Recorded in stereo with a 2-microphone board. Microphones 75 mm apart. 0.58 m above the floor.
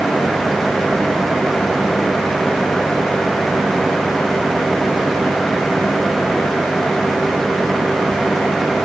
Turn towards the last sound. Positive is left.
No sound to turn to.